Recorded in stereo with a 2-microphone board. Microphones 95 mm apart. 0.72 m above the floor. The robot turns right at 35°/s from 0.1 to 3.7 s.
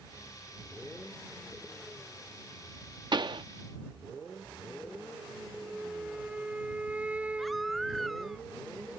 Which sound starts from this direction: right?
A pop, at 3.1 s.